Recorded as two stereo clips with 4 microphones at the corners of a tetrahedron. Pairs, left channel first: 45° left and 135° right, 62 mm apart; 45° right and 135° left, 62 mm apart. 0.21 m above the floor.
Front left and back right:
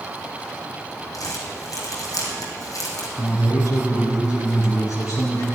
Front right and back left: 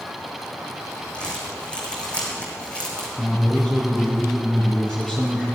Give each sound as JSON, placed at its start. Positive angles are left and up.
{"t": 1.1, "sound": "crumpling", "azimuth_deg": 25, "distance_m": 3.5}
{"t": 3.2, "sound": "a man speaking", "azimuth_deg": 30, "distance_m": 3.0}